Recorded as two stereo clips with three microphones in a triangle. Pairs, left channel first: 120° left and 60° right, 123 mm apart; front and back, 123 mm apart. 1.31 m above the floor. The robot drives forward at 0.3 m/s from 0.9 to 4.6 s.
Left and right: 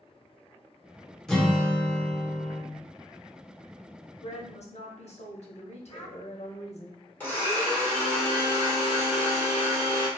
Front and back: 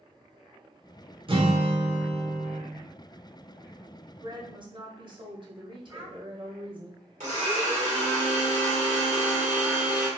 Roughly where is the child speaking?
Behind left.